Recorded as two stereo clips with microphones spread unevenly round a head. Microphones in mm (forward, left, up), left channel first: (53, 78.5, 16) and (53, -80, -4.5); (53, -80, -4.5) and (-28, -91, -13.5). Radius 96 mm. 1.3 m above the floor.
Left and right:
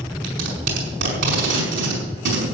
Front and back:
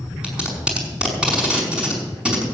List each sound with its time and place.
0.2 s tape being pulled: 95° right, 5 m